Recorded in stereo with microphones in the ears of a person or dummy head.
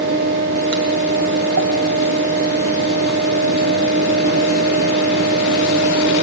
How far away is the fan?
About 0.8 m.